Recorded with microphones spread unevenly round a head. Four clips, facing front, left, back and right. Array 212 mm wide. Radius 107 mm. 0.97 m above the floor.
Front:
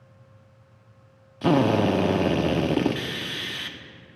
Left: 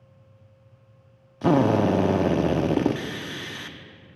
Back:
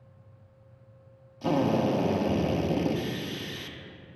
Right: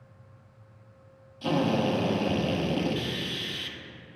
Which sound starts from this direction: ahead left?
A drill, at 1.4 s.